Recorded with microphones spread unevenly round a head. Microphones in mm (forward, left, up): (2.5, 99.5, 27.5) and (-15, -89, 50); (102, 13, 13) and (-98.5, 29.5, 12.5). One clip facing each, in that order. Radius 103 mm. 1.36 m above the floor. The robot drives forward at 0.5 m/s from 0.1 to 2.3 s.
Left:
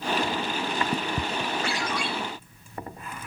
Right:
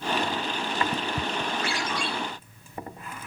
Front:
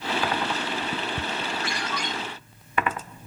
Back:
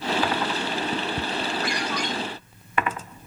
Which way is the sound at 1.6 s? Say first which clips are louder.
Left 1 dB, back 4 dB; 70° right.